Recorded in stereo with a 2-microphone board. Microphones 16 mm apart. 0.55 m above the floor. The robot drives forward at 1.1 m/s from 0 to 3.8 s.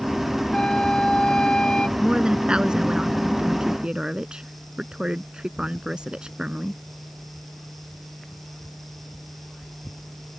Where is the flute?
65° left (ahead or behind); by 1.9 s 85° left.